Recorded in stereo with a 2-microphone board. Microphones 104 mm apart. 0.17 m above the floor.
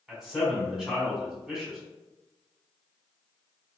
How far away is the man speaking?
About 1.5 m.